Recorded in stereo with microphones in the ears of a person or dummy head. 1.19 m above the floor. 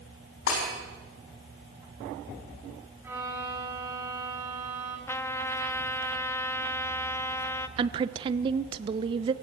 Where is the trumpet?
15° left (ahead or behind), 0.9 m.